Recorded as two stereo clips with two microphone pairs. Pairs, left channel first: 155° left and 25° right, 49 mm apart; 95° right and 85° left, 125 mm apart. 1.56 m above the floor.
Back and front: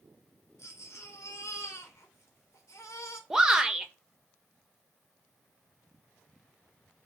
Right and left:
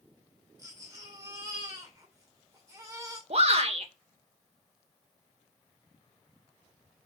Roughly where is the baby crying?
Behind left.